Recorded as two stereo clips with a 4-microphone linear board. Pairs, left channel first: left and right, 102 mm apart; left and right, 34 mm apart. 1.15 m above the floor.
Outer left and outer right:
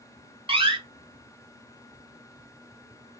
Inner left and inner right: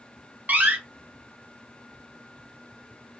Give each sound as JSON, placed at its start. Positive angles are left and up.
{"t": 0.5, "sound": "a door slam", "side_deg": -60, "distance_m": 0.6}